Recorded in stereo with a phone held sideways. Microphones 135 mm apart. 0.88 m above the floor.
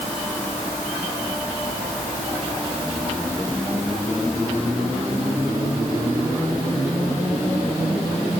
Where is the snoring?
No snoring in this recording.